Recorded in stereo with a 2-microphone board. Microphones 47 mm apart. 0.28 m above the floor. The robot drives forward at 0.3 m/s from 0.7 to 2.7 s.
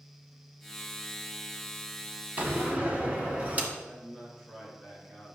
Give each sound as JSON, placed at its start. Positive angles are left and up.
{"t": 2.4, "sound": "a door slam", "side_deg": -35, "distance_m": 1.6}
{"t": 3.8, "sound": "a man speaking", "side_deg": -5, "distance_m": 4.0}